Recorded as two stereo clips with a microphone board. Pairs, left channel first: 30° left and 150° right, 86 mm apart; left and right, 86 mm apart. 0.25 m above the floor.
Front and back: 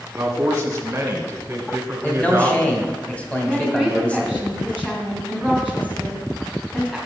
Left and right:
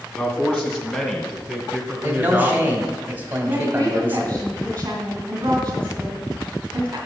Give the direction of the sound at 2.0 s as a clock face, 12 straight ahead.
1 o'clock.